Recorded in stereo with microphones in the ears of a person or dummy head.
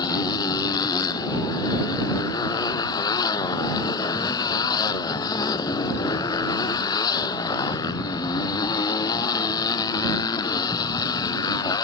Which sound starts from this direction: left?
A motorcycle, at 0.0 s.